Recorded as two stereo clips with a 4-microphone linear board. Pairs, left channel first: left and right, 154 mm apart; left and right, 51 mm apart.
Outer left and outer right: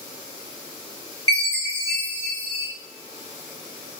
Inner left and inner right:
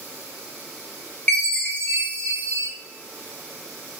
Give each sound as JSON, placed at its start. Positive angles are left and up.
{"t": 1.3, "sound": "a chime", "side_deg": 20, "distance_m": 1.5}